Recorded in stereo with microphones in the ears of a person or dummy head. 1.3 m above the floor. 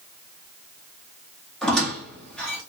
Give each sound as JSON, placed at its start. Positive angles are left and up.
{"t": 1.6, "sound": "a squeak", "side_deg": 10, "distance_m": 0.9}